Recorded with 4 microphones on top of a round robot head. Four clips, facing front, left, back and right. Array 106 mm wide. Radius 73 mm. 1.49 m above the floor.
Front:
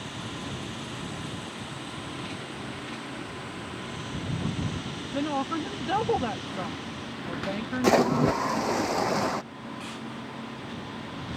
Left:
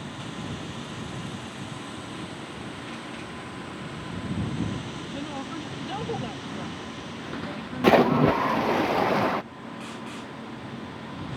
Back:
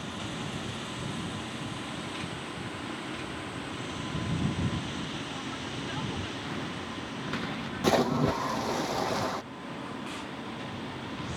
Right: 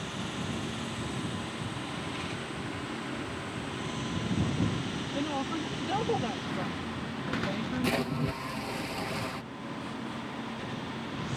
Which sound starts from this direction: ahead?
A woman speaking, at 5.1 s.